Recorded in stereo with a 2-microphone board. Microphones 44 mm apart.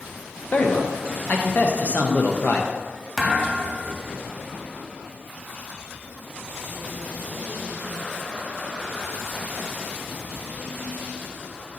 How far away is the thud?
About 1.0 m.